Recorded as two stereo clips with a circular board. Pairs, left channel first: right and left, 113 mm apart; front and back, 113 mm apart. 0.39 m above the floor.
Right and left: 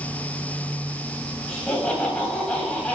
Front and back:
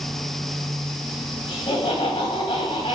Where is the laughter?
15° right, 3 m.